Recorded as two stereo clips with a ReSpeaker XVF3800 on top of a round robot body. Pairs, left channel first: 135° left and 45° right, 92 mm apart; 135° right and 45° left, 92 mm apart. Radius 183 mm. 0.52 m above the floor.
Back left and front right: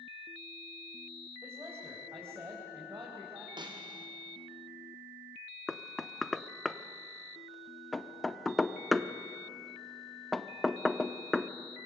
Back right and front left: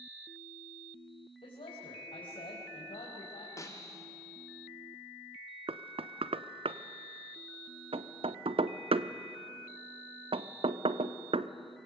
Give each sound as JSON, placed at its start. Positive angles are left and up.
{"t": 1.4, "sound": "a man speaking", "azimuth_deg": -110, "distance_m": 4.0}
{"t": 3.6, "sound": "a snare drum", "azimuth_deg": -80, "distance_m": 2.5}
{"t": 5.7, "sound": "knocking", "azimuth_deg": 45, "distance_m": 0.8}